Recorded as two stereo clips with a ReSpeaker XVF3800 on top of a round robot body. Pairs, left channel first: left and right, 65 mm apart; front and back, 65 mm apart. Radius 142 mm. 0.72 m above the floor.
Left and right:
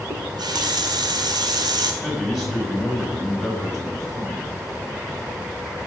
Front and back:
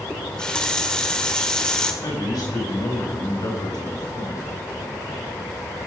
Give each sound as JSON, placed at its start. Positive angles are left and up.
{"t": 0.1, "sound": "a running tap", "azimuth_deg": -80, "distance_m": 1.6}
{"t": 2.0, "sound": "a man speaking", "azimuth_deg": -5, "distance_m": 6.5}